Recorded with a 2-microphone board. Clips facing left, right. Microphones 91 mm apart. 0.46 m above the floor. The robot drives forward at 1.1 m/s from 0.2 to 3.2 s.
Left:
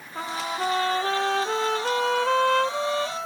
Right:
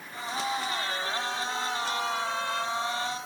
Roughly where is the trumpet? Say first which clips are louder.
Left 3 dB; left.